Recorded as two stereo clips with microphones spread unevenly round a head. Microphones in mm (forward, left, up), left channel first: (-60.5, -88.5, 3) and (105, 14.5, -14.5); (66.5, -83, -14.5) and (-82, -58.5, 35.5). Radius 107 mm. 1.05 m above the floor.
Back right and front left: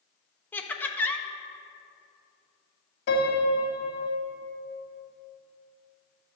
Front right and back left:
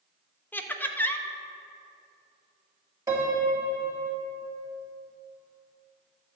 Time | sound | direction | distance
0.5 | laughter | 65° right | 1.0 m
3.1 | a piano | 125° right | 2.5 m